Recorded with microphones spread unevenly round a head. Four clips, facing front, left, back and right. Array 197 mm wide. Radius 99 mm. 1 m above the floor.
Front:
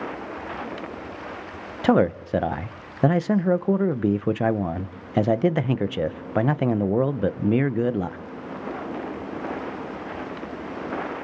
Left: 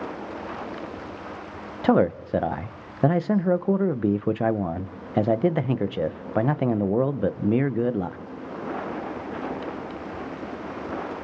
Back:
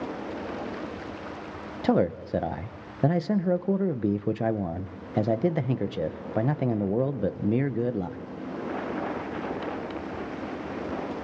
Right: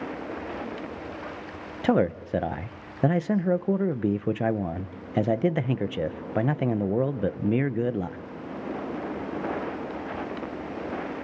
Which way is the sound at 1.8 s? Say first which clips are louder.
Left 3 dB, front 5 dB; 35° left.